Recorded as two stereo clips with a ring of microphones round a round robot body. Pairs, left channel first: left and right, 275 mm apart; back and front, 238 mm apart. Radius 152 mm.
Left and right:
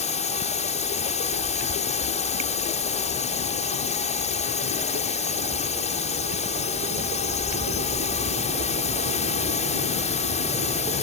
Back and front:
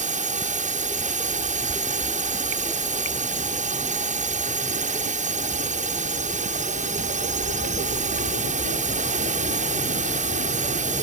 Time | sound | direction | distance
0.0 | a drone | 40° left | ?